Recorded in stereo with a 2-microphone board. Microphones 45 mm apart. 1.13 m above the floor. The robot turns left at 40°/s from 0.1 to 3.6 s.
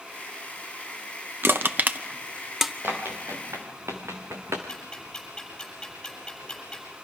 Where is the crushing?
55° right (ahead or behind), 0.8 m; by 2.7 s 5° right (ahead or behind), 0.8 m.